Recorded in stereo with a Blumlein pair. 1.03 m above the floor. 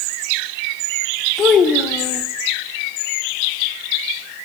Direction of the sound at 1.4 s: 25° left.